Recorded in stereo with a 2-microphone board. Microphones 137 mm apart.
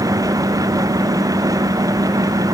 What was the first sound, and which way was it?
Only background noise.